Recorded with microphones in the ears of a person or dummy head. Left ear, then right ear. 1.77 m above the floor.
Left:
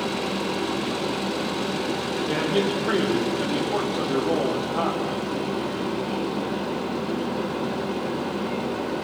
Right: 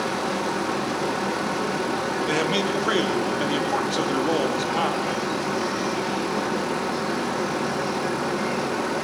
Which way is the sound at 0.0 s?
60° right (ahead or behind).